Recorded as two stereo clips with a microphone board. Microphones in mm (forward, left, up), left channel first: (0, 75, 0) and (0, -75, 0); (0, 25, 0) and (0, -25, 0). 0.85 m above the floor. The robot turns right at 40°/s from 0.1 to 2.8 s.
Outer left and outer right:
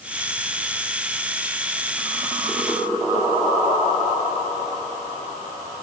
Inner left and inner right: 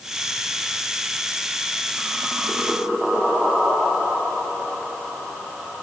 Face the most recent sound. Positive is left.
No sound to turn to.